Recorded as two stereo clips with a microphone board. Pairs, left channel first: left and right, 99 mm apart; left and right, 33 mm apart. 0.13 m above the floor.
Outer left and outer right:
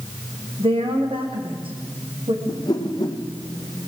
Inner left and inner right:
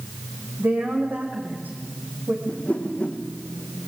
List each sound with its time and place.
0.6 s a woman speaking: 65° right (ahead or behind), 7 m; by 2.4 s 55° right (ahead or behind), 7.5 m
2.5 s a whoosh: 40° left (ahead or behind), 3.5 m